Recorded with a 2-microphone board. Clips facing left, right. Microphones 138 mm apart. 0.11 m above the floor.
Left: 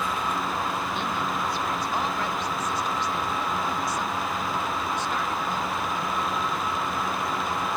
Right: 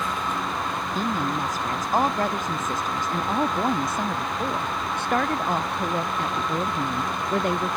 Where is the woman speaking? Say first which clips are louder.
Right 3 dB; 40° right (ahead or behind); by 7.8 s 75° right (ahead or behind).